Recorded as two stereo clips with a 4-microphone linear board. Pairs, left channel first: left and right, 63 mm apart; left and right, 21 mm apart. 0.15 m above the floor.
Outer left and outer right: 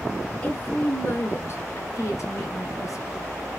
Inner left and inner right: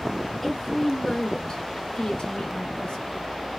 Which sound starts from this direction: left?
A woman speaking, at 0.4 s.